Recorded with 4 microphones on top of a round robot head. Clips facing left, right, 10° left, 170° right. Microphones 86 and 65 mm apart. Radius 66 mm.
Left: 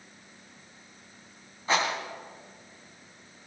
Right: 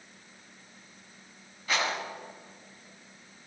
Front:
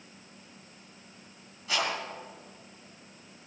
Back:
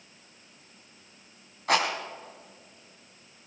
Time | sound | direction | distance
1.7 | a rattle | 155° left | 3 m